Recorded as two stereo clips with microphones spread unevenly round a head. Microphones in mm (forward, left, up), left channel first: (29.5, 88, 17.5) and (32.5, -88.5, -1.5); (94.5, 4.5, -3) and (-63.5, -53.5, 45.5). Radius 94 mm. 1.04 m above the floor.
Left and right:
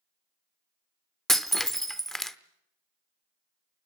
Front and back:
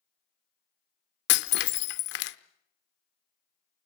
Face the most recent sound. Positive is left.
turn(degrees=10)